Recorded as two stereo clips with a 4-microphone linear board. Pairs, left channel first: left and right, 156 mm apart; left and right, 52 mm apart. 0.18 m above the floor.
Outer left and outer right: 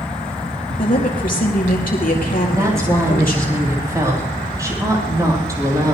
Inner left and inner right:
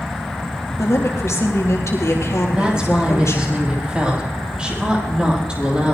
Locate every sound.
0.8 s a woman speaking: 65° left (ahead or behind), 4 m
2.5 s a woman speaking: 20° right (ahead or behind), 6 m